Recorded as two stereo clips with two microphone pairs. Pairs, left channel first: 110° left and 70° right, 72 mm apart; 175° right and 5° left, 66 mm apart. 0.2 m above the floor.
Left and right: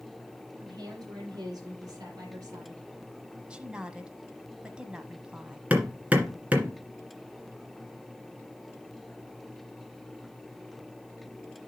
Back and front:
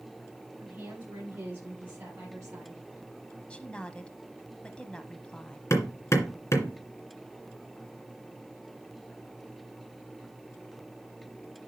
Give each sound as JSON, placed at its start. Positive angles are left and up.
{"t": 0.6, "sound": "a woman speaking", "azimuth_deg": -45, "distance_m": 6.0}
{"t": 3.5, "sound": "a woman speaking", "azimuth_deg": -125, "distance_m": 1.0}
{"t": 5.7, "sound": "hammering", "azimuth_deg": -140, "distance_m": 2.0}